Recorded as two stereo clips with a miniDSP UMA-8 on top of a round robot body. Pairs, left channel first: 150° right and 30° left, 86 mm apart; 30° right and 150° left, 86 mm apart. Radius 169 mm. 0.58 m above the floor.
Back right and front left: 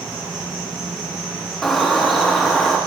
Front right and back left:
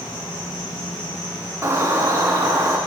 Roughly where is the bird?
Behind left.